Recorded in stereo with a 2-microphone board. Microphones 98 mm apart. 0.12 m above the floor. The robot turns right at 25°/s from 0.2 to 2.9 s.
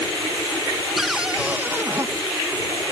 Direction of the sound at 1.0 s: Centre (ahead or behind).